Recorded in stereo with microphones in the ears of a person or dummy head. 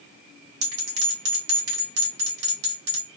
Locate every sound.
0.6 s a bell: 60° right (ahead or behind), 1.8 m